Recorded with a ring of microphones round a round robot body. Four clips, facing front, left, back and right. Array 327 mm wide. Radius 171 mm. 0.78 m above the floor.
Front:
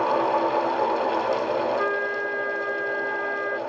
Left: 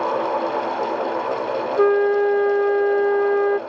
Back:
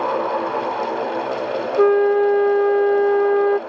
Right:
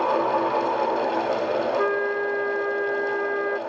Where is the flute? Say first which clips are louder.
Left 7 dB, back 12 dB; 150° left.